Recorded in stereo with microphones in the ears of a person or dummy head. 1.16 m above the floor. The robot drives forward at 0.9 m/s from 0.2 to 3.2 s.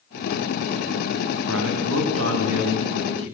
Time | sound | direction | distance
1.5 | a man speaking | 80° right | 8.5 m